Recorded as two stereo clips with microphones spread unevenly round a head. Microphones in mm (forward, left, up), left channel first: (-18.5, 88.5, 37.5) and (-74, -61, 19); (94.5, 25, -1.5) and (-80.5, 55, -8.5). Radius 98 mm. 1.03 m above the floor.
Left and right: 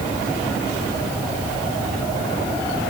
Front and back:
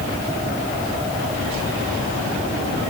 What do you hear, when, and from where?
Only background noise.